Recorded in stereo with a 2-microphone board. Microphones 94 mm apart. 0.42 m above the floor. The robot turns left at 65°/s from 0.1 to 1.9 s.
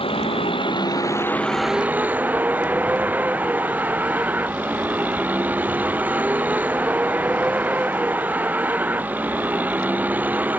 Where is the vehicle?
100° left; by 10.6 s 20° right.